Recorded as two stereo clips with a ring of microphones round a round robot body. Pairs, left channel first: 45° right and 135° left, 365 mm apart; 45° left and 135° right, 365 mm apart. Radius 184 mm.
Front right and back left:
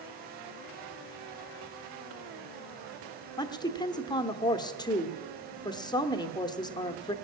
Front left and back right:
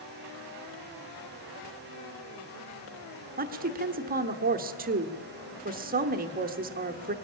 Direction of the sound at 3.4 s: 110° right.